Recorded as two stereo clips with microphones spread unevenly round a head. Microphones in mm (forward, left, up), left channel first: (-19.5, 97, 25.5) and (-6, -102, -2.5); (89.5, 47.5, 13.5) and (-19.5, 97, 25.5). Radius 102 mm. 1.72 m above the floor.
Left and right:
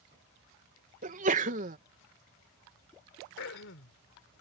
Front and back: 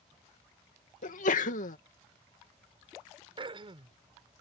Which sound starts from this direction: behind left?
Throat clearing, at 3.4 s.